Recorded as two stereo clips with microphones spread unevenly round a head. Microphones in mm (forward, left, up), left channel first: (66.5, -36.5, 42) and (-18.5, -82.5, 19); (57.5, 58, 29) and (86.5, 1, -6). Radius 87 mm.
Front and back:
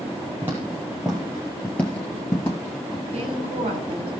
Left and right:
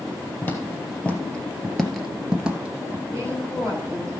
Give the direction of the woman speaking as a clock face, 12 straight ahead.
6 o'clock.